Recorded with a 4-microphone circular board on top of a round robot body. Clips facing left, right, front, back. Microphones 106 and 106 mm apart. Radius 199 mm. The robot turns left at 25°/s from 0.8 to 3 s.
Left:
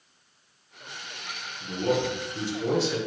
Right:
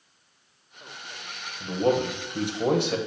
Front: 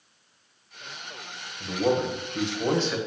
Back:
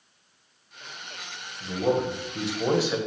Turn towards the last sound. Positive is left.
turn(degrees=-105)